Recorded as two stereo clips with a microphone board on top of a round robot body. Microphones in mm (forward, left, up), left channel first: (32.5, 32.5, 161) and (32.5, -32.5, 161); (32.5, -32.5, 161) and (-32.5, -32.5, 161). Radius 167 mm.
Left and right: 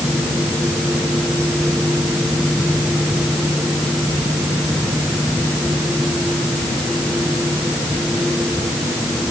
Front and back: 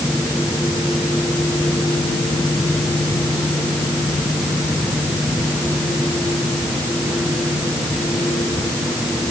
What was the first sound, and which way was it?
Only background noise.